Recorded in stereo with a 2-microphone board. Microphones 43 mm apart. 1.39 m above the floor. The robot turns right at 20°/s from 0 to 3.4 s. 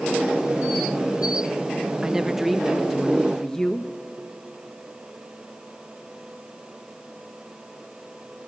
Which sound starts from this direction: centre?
A woman speaking, at 2.0 s.